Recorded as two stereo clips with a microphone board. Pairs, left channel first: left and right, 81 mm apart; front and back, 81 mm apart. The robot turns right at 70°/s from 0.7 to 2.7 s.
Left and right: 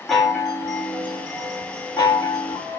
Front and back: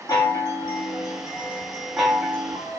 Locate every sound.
0.1 s a chime: 5° left, 0.9 m; by 2.8 s 145° left, 0.9 m